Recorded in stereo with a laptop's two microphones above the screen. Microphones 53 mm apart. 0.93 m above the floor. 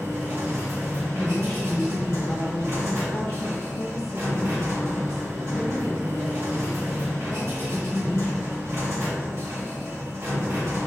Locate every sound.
0.0 s a machine running: 65° right (ahead or behind), 2.0 m
1.1 s a woman speaking: 65° left (ahead or behind), 1.3 m